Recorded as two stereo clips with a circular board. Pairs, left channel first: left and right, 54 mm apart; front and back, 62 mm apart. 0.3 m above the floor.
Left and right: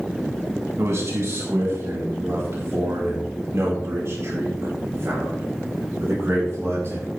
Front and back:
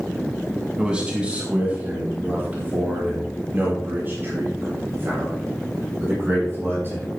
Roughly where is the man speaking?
Right.